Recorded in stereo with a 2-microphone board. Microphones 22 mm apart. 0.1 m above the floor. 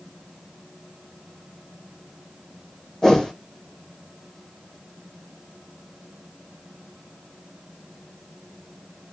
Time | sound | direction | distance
3.0 | a whoosh | 25° left (ahead or behind) | 0.8 m